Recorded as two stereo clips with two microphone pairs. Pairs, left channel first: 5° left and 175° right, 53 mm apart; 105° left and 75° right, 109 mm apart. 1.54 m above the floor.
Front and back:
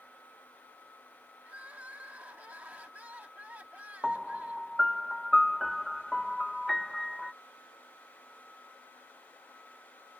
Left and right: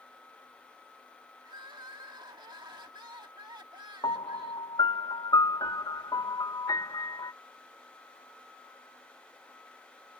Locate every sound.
1.4 s crying: 115° right
4.0 s a piano: 90° left